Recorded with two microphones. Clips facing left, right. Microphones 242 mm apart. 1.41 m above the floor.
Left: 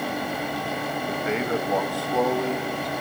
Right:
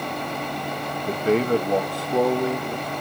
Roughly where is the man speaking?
Right.